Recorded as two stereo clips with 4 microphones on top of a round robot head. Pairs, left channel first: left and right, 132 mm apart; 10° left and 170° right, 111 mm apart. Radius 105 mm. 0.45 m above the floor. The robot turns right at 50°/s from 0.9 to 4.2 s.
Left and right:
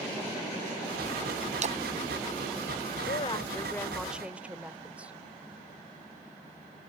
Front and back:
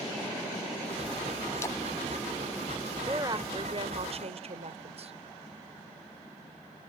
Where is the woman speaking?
135° left; by 5.1 s 170° right.